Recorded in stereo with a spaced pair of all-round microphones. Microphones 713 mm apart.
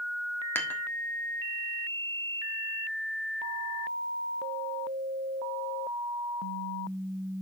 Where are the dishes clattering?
5° left (ahead or behind), 1.4 m.